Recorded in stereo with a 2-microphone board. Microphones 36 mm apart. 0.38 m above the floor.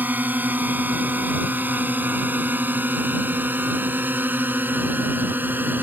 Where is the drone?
60° right (ahead or behind); by 5.8 s 70° right (ahead or behind).